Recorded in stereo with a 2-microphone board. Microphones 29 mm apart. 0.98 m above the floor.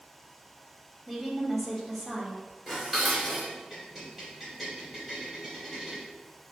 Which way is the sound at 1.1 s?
5° left (ahead or behind).